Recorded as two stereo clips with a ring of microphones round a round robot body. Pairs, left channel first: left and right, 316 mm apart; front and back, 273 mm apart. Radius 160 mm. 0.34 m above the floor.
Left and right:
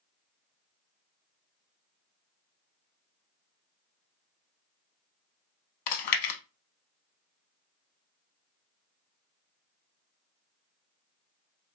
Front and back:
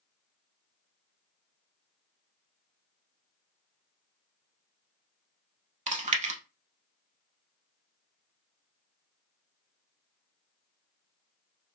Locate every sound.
5.9 s chewing: 115° left, 0.7 m